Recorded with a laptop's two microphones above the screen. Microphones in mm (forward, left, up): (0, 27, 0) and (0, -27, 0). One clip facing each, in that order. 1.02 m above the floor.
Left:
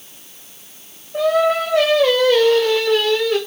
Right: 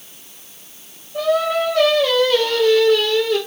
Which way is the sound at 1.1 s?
60° left (ahead or behind).